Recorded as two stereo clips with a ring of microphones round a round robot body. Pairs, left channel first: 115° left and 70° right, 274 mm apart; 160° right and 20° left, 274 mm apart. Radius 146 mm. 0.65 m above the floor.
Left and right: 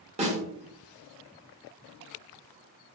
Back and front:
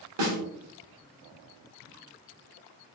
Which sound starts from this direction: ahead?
A snare drum, at 0.2 s.